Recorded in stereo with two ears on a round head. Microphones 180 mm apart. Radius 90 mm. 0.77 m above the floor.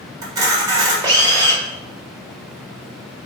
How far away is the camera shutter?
About 1.4 m.